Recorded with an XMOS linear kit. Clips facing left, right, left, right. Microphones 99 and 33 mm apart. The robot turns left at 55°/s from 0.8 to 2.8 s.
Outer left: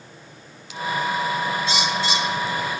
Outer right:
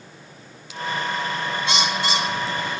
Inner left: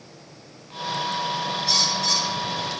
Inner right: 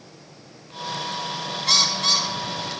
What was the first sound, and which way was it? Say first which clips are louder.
A bird: even, inner right 4 dB; 90° right.